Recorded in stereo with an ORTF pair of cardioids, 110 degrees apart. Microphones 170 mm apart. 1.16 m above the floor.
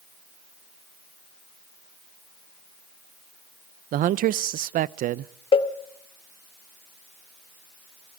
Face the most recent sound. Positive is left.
turn(degrees=35)